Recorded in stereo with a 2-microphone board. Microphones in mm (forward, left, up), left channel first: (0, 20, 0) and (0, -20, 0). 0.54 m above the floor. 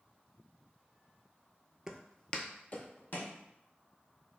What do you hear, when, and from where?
1.9 s footsteps: 15° right (ahead or behind), 0.5 m; by 3.4 s 60° left (ahead or behind), 1.3 m